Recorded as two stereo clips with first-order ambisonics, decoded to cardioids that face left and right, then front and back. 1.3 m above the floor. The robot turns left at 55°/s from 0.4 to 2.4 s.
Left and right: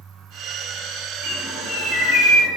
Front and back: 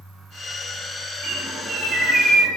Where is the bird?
140° left, 3 m; by 2.5 s 80° left, 3 m.